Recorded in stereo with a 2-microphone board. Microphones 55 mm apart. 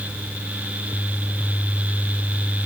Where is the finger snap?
I don't hear a finger snap.